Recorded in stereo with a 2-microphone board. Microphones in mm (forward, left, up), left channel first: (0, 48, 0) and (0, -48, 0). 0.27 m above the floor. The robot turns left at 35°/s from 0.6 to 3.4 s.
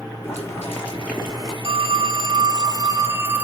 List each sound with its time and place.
0.2 s boiling: 25° left, 4.5 m; by 1.5 s 5° right, 4.5 m
1.6 s a phone ringing: 100° right, 1.3 m; by 3.4 s 160° right, 1.3 m